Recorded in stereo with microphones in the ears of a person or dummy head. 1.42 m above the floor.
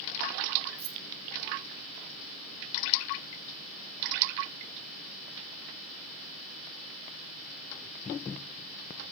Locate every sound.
0.8 s keys jangling: 55° right (ahead or behind), 0.7 m